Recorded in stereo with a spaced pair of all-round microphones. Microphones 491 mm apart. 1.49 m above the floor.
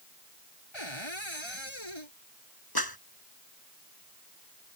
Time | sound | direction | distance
0.7 | a cupboard door | 65° left (ahead or behind) | ?
2.8 | a clap | 45° left (ahead or behind) | ?